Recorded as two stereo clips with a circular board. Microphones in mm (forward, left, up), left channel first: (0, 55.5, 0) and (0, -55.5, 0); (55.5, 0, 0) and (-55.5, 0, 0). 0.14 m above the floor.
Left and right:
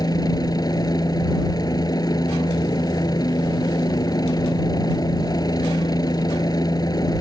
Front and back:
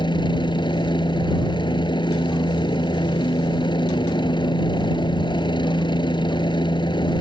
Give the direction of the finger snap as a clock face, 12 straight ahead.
I don't hear a finger snap.